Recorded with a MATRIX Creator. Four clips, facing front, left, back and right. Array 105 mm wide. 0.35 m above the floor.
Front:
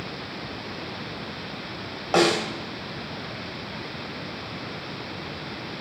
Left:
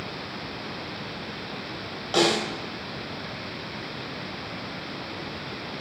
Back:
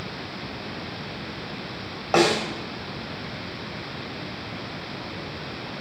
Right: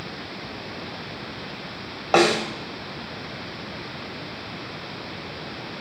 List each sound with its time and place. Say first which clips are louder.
2.1 s a snare drum: right 4 dB, back 1 dB; 100° right, 2 m